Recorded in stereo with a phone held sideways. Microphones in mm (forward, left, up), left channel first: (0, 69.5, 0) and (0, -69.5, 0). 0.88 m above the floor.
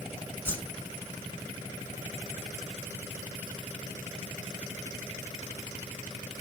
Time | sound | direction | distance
0.5 | a whoosh | 15° left (ahead or behind) | 6 m